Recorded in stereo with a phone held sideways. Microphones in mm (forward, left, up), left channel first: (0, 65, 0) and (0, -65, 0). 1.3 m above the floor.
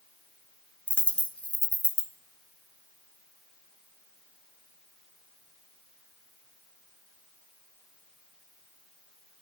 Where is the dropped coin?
10° left (ahead or behind), 0.7 m.